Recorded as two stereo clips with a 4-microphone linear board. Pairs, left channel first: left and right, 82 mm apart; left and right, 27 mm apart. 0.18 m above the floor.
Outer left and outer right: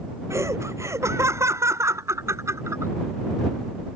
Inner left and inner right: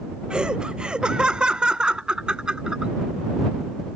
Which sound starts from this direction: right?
Laughter, at 0.3 s.